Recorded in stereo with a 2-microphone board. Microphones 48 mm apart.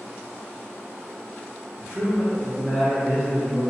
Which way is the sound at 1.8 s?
10° right (ahead or behind).